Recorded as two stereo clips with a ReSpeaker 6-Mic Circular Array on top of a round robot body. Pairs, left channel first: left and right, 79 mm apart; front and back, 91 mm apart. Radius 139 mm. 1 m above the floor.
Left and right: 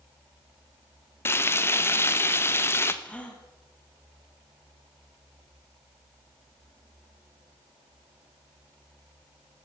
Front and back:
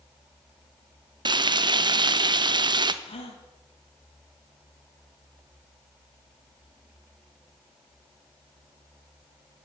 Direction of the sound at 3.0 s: 15° left.